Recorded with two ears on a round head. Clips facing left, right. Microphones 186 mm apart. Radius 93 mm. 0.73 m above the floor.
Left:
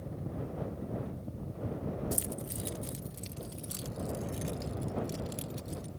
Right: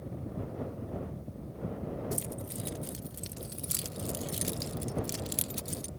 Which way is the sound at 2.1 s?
10° left (ahead or behind).